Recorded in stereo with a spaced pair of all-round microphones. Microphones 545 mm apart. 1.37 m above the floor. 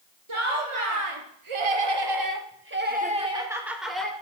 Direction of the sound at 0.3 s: 60° right (ahead or behind).